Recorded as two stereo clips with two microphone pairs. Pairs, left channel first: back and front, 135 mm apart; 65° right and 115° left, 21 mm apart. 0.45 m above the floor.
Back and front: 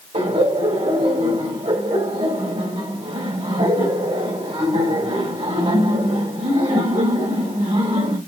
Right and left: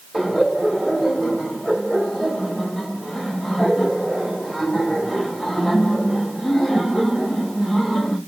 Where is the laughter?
25° left, 2.5 m.